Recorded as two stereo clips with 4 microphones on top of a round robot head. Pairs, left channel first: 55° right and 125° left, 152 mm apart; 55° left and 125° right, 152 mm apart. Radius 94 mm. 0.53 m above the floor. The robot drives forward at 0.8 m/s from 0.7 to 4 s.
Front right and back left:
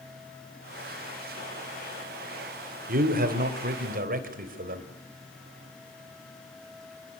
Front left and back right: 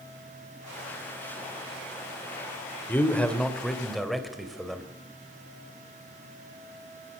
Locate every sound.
2.9 s a man speaking: 135° left, 2.5 m; by 4.9 s 145° left, 3 m